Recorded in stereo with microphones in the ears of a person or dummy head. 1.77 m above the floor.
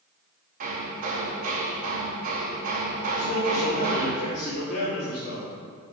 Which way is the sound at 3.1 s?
55° left (ahead or behind).